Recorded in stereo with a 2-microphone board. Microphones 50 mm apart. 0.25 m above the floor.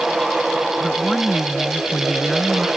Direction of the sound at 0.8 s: Centre (ahead or behind).